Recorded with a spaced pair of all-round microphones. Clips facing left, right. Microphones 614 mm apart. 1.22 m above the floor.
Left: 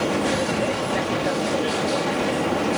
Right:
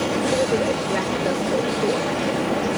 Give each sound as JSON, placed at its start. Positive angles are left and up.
{"t": 0.3, "sound": "a woman speaking", "side_deg": -85}